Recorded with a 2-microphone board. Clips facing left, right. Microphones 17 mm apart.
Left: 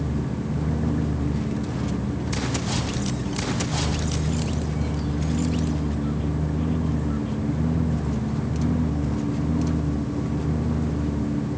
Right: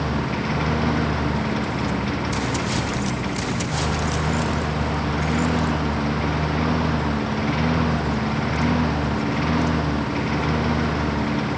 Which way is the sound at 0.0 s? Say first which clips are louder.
Right 4 dB; 85° right.